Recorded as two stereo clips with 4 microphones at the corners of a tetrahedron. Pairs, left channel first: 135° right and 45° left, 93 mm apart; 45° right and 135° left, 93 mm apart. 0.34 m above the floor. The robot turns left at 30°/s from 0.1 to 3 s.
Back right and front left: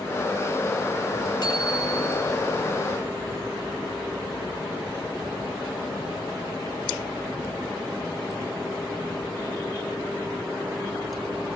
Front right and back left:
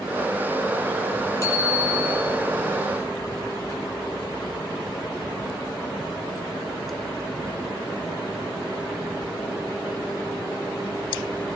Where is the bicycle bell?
100° right, 5.5 m; by 2.4 s 125° right, 5.5 m.